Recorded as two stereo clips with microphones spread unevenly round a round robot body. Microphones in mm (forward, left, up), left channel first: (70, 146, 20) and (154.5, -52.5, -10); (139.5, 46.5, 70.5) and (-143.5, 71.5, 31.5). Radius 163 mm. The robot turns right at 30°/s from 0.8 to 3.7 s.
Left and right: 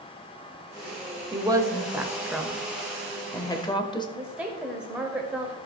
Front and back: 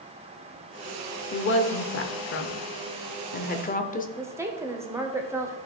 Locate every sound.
1.3 s a woman speaking: 25° right, 1.0 m; by 4.1 s 45° left, 1.0 m
4.2 s a woman speaking: 130° right, 0.9 m